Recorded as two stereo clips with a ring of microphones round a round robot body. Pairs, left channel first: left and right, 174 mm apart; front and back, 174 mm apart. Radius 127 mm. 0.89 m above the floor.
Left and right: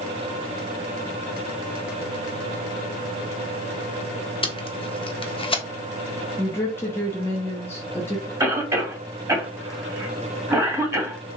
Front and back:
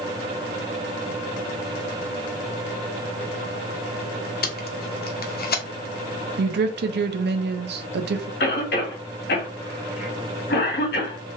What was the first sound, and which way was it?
Tape being pulled, 30° left.